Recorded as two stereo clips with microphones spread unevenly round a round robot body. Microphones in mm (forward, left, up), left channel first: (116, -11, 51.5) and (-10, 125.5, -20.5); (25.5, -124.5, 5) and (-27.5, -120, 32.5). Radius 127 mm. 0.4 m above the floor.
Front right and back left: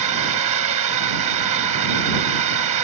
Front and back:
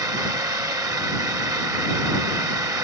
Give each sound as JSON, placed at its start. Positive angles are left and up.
{"t": 0.0, "sound": "a drone", "azimuth_deg": 140}